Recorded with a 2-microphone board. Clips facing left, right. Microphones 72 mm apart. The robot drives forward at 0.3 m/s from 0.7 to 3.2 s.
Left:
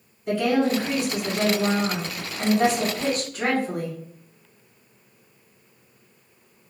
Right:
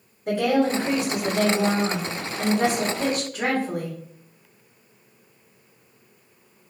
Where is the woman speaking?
65° right (ahead or behind), 1.6 m; by 4.0 s 60° right (ahead or behind), 1.7 m.